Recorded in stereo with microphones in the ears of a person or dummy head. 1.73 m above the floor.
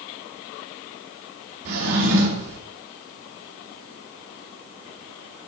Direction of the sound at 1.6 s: 65° right (ahead or behind).